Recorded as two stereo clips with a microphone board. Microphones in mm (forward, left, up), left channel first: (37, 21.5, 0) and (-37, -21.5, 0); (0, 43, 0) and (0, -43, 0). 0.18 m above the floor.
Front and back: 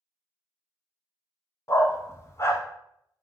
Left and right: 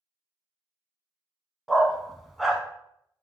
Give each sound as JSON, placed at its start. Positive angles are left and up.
{"t": 1.7, "sound": "a dog barking", "azimuth_deg": 0, "distance_m": 0.5}